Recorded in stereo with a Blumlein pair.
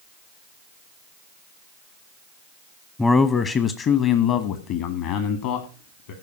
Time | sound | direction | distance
3.0 | a man speaking | 10° left | 0.8 m